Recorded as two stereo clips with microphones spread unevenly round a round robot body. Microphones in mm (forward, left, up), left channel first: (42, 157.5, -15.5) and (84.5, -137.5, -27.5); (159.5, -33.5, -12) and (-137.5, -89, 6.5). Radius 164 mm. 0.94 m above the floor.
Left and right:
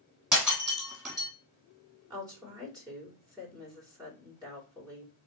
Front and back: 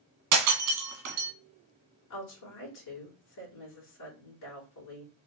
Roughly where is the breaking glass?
Behind.